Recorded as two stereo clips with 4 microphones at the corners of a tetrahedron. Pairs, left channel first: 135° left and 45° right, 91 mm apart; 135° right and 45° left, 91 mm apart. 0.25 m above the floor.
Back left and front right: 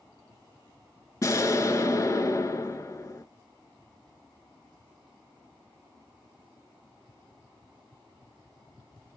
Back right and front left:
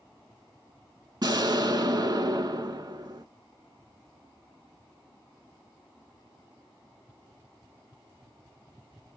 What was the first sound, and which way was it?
An explosion, 85° left.